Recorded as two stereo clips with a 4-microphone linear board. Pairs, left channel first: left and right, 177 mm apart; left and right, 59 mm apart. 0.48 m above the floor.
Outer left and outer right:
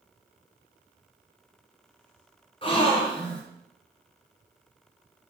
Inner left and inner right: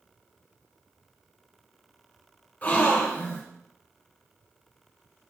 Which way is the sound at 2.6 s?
30° left (ahead or behind).